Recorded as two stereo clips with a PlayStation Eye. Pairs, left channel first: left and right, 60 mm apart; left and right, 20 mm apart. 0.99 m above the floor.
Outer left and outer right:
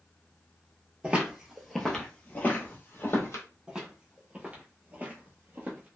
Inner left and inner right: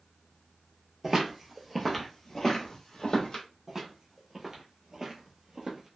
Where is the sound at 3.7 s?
10° right (ahead or behind), 1.2 m; by 5.9 s 30° right (ahead or behind), 1.2 m.